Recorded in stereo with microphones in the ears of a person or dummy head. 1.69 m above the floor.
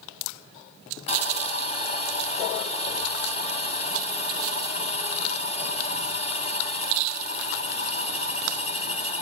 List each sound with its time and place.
1.1 s sawing: 30° left (ahead or behind), 3.5 m